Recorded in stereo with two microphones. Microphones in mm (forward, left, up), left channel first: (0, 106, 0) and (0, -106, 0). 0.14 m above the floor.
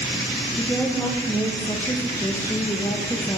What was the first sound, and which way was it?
A woman speaking, 5° left (ahead or behind).